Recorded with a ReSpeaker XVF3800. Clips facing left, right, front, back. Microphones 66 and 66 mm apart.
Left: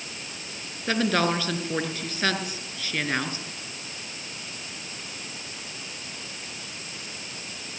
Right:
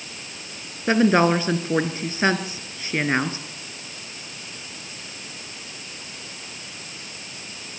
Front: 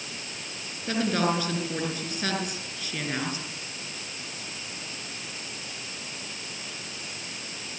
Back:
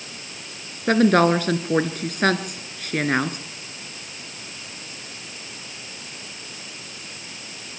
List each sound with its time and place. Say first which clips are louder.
0.9 s a woman speaking: right 6 dB, back 10 dB; 150° right, 2.5 m